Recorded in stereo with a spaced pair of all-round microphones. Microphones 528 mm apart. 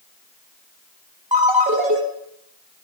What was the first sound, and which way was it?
A ringtone, 15° right (ahead or behind).